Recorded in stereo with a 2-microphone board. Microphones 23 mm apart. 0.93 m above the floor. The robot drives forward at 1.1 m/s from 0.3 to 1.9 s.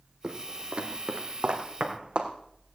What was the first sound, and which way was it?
Footsteps, 40° right (ahead or behind).